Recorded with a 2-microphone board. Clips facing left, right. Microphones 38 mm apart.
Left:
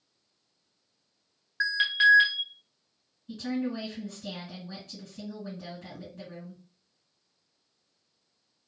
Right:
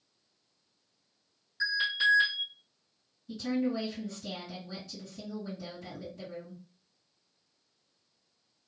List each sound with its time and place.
1.6 s an alarm: 55° left (ahead or behind), 1.9 m
3.3 s a woman speaking: 45° left (ahead or behind), 2 m